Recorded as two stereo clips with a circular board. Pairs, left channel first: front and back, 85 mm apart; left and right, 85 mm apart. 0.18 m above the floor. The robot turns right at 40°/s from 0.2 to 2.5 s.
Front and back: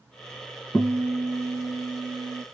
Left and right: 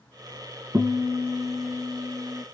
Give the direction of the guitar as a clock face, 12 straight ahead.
2 o'clock.